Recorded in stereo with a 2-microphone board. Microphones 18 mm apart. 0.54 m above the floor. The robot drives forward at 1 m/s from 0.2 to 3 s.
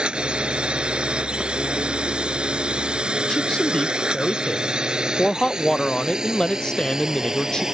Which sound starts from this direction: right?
A drone, at 0.0 s.